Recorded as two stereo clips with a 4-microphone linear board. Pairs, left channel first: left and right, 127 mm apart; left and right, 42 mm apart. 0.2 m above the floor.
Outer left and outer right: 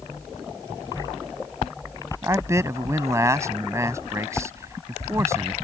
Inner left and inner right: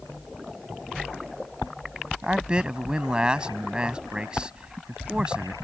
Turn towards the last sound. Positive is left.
turn(degrees=-25)  # may be behind; listen again after turning